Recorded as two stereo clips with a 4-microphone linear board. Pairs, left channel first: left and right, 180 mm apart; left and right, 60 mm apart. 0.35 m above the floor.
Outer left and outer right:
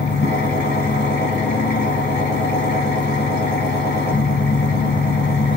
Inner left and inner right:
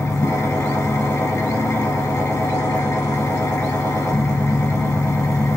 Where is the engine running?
70° left (ahead or behind), 0.8 m.